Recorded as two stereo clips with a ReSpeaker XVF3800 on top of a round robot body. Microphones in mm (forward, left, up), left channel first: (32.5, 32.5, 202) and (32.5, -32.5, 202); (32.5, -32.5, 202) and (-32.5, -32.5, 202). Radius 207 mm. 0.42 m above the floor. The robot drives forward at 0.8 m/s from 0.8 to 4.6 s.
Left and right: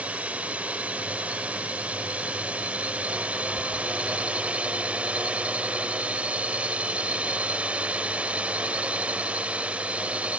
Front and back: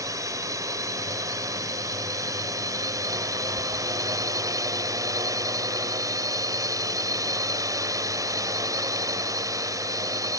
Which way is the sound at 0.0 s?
155° right.